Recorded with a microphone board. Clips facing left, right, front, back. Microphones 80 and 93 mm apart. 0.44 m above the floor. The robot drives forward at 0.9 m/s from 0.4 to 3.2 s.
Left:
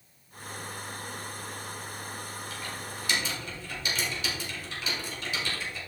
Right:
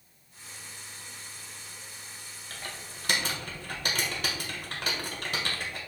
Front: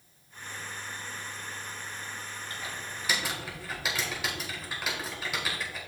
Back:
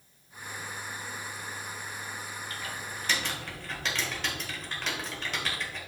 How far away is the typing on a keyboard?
About 1.8 m.